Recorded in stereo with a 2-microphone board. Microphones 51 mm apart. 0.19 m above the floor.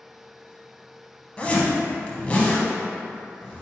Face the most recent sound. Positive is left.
turn(degrees=25)  # may be behind; listen again after turning